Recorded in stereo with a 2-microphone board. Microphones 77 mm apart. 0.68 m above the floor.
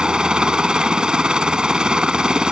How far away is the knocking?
I don't hear knocking.